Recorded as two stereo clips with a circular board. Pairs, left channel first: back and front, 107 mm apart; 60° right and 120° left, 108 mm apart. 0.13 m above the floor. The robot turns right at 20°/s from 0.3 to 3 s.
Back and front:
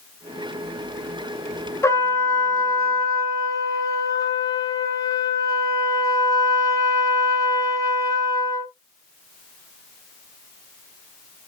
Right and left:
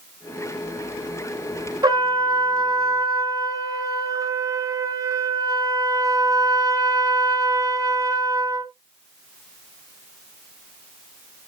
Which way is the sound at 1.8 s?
130° left.